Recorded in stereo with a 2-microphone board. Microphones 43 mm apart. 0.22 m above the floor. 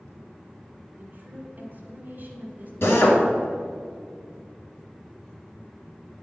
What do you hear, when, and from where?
1.0 s a woman speaking: 45° right (ahead or behind), 1.4 m
2.8 s a drill: 65° left (ahead or behind), 1.8 m